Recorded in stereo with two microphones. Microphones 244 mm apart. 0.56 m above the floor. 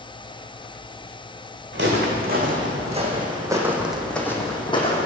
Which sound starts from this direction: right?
Footsteps, at 1.7 s.